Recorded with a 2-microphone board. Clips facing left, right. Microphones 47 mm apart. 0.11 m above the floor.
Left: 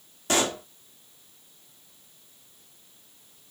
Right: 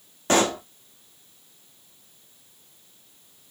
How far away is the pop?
About 1.6 m.